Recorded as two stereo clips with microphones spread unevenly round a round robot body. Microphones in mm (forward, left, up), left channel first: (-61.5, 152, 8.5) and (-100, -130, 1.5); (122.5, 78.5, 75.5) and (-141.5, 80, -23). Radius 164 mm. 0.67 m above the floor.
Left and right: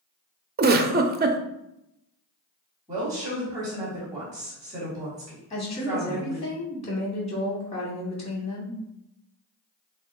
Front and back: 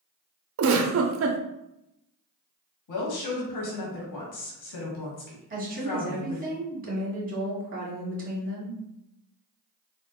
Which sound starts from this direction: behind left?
A woman speaking, at 5.5 s.